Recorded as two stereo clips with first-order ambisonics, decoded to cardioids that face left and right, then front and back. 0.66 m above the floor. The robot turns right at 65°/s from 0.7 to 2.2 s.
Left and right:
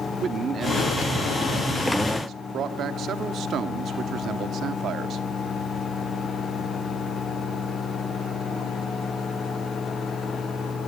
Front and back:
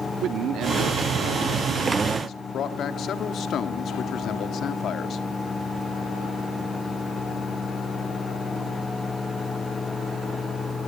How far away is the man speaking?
About 1.5 m.